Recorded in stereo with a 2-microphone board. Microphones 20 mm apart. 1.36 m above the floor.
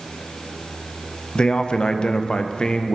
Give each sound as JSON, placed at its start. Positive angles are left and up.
{"t": 1.4, "sound": "a man speaking", "side_deg": 45, "distance_m": 0.5}